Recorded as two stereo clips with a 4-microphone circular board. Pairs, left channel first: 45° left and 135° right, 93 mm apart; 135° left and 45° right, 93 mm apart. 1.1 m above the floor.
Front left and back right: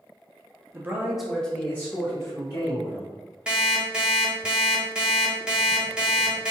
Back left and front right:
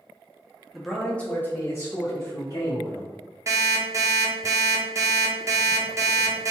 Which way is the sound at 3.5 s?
65° right.